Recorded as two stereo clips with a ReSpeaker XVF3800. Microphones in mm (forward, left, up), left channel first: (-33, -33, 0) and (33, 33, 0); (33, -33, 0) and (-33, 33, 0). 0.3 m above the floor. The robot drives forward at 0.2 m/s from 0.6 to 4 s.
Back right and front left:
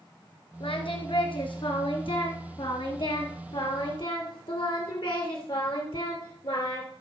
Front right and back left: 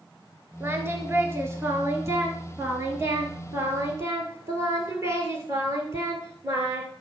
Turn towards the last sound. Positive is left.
turn(degrees=-165)